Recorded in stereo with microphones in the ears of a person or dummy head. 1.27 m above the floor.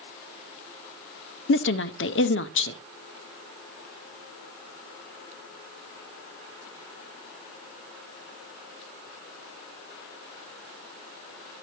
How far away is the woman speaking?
About 0.6 m.